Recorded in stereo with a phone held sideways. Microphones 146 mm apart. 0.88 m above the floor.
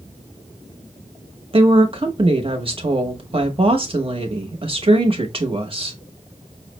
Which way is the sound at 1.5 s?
40° right (ahead or behind).